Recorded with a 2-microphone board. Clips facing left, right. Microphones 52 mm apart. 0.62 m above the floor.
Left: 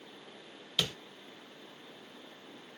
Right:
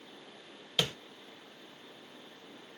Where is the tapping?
20° right (ahead or behind), 1.0 m.